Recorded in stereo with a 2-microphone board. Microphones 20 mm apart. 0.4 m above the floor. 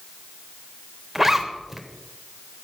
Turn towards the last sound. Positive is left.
turn(degrees=-10)  # may be behind; listen again after turning